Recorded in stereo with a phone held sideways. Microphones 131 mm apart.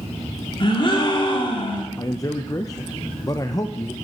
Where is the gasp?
40° left (ahead or behind), 2 m.